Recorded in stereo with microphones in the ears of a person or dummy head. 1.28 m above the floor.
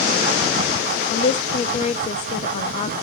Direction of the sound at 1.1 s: 40° left (ahead or behind).